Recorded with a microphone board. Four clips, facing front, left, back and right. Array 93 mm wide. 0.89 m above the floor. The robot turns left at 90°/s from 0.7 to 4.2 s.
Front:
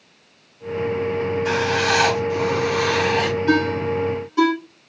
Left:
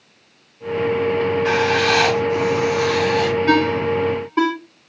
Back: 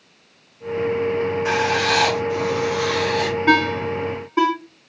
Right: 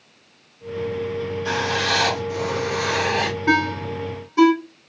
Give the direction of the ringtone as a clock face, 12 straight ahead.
5 o'clock.